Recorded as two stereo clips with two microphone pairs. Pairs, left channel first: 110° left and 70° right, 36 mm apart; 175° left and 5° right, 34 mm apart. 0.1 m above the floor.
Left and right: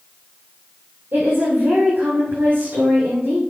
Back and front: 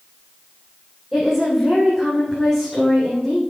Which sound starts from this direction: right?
A woman speaking, at 1.1 s.